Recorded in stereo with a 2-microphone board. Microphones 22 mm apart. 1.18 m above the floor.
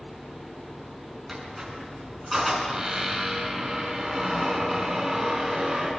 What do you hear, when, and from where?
1.3 s a squeak: 10° right (ahead or behind), 7 m